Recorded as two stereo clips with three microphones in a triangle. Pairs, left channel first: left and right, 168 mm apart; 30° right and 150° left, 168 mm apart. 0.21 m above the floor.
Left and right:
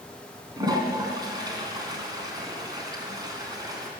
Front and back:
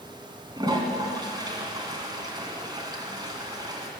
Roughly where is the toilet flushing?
Behind right.